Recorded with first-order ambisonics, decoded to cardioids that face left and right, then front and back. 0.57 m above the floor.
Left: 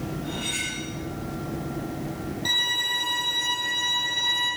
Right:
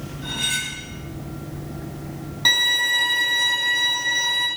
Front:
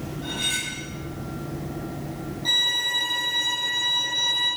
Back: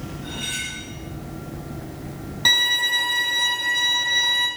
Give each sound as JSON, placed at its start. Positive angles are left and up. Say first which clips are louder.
{"t": 0.2, "sound": "cutlery clinking", "louder": "right 6 dB, front 2 dB", "azimuth_deg": -65, "distance_m": 2.0}
{"t": 2.5, "sound": "a violin", "louder": "right 6 dB, back 4 dB", "azimuth_deg": -140, "distance_m": 3.0}